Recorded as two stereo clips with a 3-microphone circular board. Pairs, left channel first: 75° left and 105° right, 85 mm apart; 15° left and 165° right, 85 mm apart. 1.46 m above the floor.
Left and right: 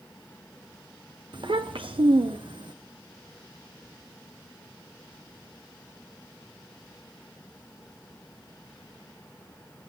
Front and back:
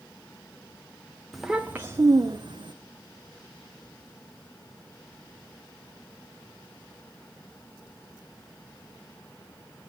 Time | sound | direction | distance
1.3 | a child speaking | 75° right | 0.6 m